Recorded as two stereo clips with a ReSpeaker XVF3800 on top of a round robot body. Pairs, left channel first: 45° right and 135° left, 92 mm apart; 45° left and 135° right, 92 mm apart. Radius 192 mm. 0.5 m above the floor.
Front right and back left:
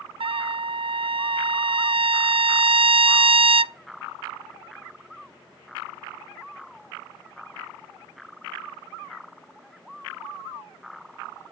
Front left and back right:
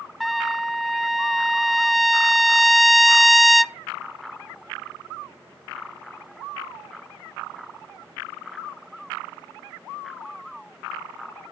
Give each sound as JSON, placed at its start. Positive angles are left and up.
{"t": 0.2, "sound": "a trumpet", "azimuth_deg": 135, "distance_m": 0.5}